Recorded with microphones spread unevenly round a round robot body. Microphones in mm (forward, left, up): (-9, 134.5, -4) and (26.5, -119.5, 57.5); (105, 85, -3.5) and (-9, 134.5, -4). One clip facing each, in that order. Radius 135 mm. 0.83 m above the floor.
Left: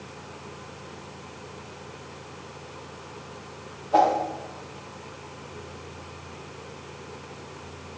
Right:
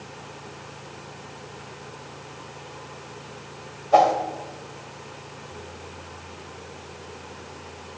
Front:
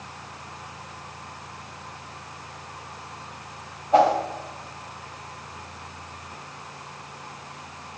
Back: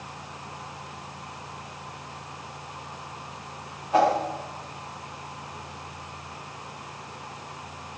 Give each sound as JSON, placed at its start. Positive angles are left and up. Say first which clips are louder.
{"t": 3.9, "sound": "a whoosh", "louder": "right 3 dB, front 3 dB", "azimuth_deg": -85, "distance_m": 2.0}